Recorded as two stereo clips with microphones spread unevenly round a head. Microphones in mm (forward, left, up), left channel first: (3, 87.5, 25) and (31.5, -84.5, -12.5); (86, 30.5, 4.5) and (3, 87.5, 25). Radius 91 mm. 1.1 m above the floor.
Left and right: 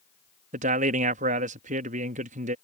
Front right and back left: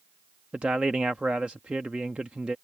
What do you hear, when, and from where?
0.5 s a man speaking: 130° right